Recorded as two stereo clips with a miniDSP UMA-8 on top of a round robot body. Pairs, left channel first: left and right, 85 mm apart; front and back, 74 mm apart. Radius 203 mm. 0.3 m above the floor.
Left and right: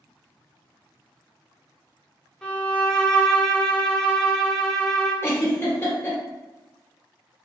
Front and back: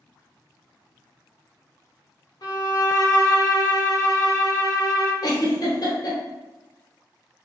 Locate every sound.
2.4 s a violin: 10° left, 1.1 m
5.2 s a giggle: 30° left, 1.2 m